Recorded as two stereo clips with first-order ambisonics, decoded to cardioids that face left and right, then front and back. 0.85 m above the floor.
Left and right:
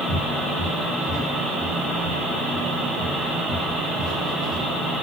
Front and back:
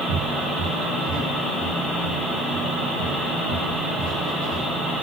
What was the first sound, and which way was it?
Footsteps, 165° right.